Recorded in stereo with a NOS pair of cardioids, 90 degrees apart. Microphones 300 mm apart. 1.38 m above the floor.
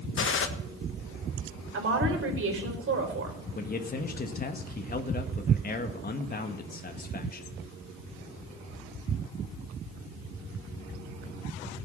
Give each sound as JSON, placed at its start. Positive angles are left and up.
{"t": 0.2, "sound": "a gunshot", "azimuth_deg": 45, "distance_m": 1.5}
{"t": 1.7, "sound": "a woman speaking", "azimuth_deg": -45, "distance_m": 4.5}
{"t": 3.5, "sound": "a man speaking", "azimuth_deg": 30, "distance_m": 1.7}